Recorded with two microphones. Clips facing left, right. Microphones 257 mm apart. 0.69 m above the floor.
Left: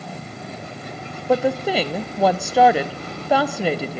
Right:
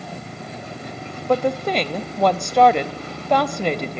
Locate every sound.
1.3 s a woman speaking: 5° left (ahead or behind), 0.5 m